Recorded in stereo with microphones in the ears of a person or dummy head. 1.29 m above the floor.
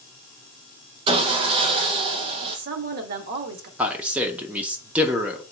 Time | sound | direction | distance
1.1 | sawing | 30° right (ahead or behind) | 0.5 m
2.5 | a woman speaking | 60° right (ahead or behind) | 0.9 m
3.8 | a man speaking | 5° right (ahead or behind) | 0.6 m